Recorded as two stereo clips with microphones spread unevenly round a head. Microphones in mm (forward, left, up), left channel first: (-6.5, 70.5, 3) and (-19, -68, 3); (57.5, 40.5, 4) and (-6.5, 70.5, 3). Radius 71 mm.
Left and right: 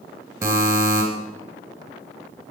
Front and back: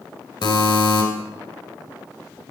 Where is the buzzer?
25° right, 2.5 m.